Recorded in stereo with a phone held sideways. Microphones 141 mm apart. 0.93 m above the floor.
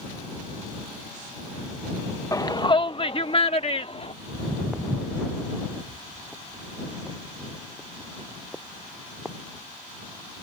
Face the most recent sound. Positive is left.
turn(degrees=5)  # may be behind; listen again after turning